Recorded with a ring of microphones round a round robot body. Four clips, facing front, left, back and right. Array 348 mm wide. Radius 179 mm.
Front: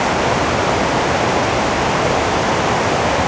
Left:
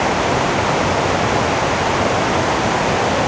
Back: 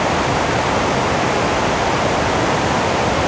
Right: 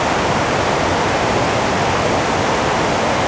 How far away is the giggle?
I don't hear a giggle.